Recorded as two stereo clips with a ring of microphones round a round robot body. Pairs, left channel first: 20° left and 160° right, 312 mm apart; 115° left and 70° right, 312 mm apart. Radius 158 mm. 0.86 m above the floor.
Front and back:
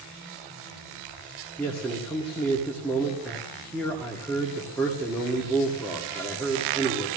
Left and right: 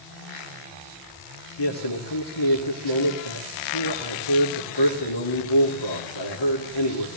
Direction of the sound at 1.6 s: 105° left.